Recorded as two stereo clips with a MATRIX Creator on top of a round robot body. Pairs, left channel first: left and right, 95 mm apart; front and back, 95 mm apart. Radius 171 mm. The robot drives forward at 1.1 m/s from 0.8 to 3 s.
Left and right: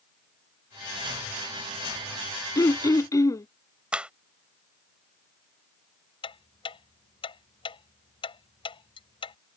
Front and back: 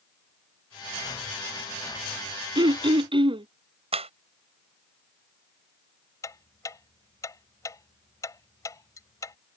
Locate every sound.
2.5 s throat clearing: 145° left; by 3.5 s 150° left
3.9 s a clap: 170° right
6.2 s ticking: 55° left